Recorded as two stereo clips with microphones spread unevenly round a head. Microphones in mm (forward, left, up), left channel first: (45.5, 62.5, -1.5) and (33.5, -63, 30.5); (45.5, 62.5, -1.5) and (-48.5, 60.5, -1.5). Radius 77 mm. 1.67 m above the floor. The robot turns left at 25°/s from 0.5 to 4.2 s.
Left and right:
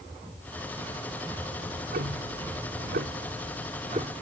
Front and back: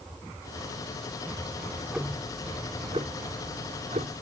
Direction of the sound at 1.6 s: 85° right.